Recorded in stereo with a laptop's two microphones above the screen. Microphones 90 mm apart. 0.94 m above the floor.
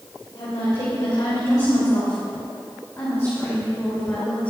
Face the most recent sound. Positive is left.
turn(degrees=20)  # may be behind; listen again after turning